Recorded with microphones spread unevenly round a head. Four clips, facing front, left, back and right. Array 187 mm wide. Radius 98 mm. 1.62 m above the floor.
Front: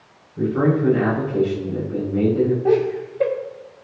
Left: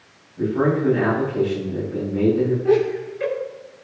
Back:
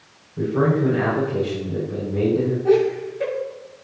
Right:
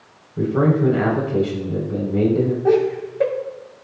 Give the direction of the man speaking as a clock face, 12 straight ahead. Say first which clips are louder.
Right 2 dB, front 1 dB; 3 o'clock.